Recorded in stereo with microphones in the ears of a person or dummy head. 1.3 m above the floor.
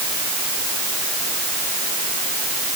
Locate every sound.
Only background noise.